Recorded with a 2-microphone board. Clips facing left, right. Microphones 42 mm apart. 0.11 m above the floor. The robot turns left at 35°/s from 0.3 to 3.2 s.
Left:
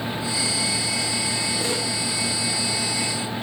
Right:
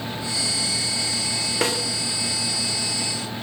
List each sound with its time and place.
1.6 s a snare drum: 70° right (ahead or behind), 9.5 m; by 1.8 s 80° right, 9.5 m